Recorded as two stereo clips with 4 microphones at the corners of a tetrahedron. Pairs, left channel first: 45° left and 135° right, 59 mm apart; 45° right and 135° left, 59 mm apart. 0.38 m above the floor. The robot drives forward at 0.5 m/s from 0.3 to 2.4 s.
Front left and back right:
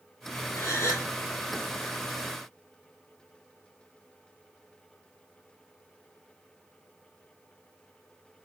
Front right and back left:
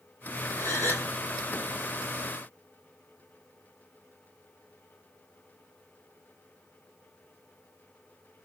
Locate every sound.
0.6 s a gasp: 5° left, 2 m